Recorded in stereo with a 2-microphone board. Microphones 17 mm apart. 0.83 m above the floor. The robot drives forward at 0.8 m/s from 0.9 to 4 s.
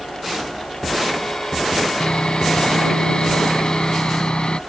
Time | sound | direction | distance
2.0 | sawing | 85° left | ?